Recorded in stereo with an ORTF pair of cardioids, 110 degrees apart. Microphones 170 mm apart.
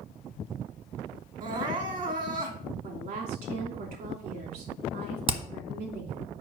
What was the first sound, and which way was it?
Crying, 50° right.